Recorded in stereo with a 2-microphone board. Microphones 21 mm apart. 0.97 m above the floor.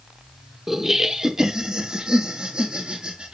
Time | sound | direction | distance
0.7 | laughter | 20° right (ahead or behind) | 1.2 m